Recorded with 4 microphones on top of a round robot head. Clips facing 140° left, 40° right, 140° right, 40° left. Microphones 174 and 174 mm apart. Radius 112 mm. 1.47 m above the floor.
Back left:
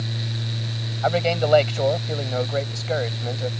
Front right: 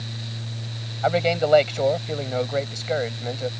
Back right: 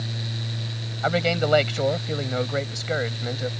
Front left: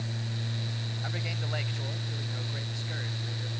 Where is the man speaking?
130° right.